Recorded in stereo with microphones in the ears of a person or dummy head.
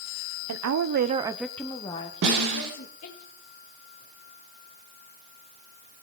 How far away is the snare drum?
About 3.5 m.